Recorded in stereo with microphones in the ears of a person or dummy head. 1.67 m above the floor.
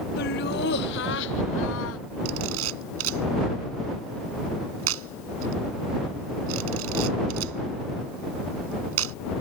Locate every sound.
0.2 s laughter: 55° left (ahead or behind); by 2.0 s 75° left (ahead or behind)
2.2 s a camera shutter: 80° right